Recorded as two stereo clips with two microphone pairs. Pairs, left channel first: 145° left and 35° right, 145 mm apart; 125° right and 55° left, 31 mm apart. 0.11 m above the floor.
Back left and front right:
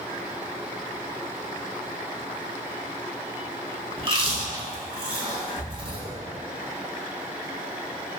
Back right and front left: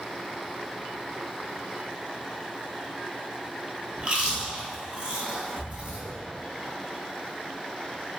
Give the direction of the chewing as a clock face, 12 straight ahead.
12 o'clock.